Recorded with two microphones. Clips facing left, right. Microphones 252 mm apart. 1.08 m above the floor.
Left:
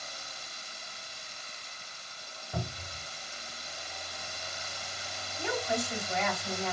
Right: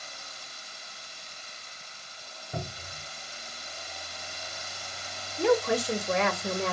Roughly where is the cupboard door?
Centre.